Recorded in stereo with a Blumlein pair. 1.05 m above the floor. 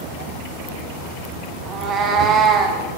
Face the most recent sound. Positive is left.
turn(degrees=-25)